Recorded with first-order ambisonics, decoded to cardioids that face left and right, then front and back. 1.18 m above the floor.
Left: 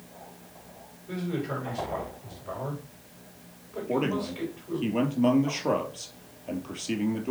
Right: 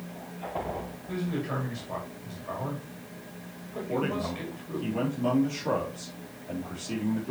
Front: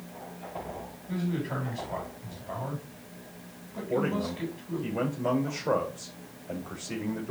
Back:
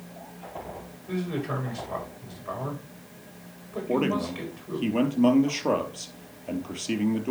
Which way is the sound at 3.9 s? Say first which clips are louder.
Left 2 dB, back 3 dB; 155° left.